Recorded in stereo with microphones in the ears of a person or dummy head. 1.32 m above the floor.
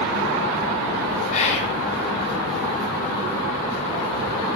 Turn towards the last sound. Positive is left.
turn(degrees=40)  # may be behind; listen again after turning